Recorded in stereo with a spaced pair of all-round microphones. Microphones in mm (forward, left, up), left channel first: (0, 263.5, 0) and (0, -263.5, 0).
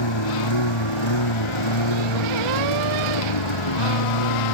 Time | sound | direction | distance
0.0 | a lawn mower | 55° left (ahead or behind) | ?